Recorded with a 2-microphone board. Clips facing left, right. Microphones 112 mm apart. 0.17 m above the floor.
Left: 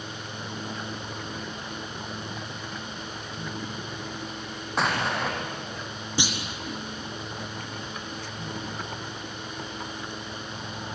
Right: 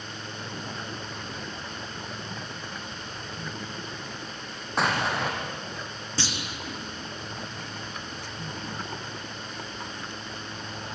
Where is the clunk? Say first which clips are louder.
Left 3 dB; 15° left (ahead or behind), 2.5 m.